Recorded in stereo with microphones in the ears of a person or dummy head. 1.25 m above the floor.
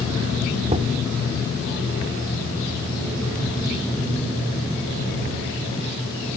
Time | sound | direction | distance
0.7 | knocking | 30° right (ahead or behind) | ?